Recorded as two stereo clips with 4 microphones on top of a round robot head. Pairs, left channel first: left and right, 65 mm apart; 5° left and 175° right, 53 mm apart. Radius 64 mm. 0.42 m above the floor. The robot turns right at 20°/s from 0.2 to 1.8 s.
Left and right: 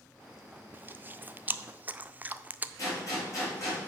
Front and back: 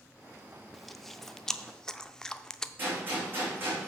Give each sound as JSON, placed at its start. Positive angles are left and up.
{"t": 0.7, "sound": "chewing", "azimuth_deg": -80, "distance_m": 0.5}
{"t": 2.8, "sound": "a gunshot", "azimuth_deg": 135, "distance_m": 4.5}